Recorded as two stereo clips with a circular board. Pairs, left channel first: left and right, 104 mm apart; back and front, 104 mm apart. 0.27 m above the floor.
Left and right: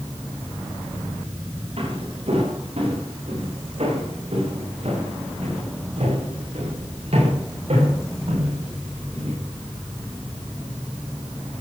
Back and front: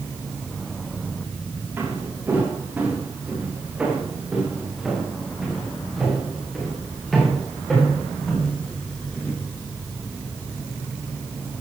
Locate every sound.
1.8 s footsteps: 70° right, 8 m; by 9.3 s 100° right, 12.5 m